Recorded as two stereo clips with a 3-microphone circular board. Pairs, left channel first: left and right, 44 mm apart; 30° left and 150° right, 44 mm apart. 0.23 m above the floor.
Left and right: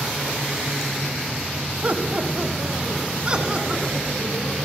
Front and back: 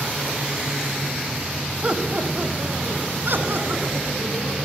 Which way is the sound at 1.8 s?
110° right.